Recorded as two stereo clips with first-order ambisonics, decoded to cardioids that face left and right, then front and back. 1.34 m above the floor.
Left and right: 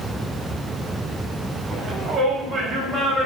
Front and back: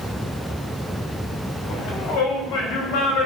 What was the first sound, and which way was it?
A shout, 25° right.